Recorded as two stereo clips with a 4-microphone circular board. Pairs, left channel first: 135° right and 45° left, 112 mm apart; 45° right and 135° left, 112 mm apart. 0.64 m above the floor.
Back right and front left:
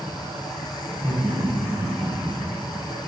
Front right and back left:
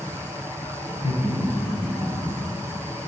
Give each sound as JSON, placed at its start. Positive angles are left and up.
{"t": 0.9, "sound": "laughter", "azimuth_deg": -65, "distance_m": 3.0}